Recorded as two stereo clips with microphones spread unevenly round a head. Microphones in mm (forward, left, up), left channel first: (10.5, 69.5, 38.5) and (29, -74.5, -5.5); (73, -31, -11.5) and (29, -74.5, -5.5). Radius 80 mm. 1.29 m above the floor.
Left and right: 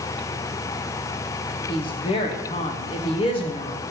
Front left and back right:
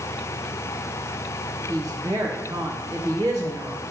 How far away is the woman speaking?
About 0.7 m.